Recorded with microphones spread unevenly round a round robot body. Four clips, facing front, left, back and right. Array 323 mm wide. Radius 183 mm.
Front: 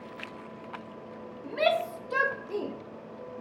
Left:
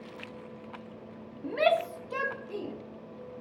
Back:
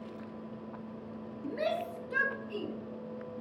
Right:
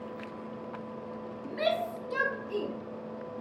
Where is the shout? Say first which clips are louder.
Left 4 dB, front 7 dB; 120° left, 1.1 m; by 2.7 s 30° right, 1.2 m.